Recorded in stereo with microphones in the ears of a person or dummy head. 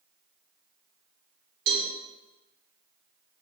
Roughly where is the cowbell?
Right.